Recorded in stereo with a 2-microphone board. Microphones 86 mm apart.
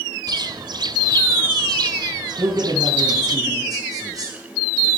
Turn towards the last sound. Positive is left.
turn(degrees=-45)  # may be behind; listen again after turning